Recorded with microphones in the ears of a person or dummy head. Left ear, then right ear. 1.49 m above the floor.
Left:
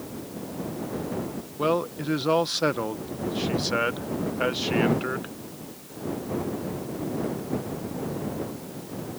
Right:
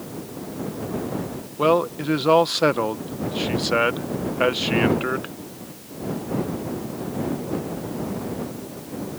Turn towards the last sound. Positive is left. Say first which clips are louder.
# right 6 dB
turn(degrees=-15)  # may be behind; listen again after turning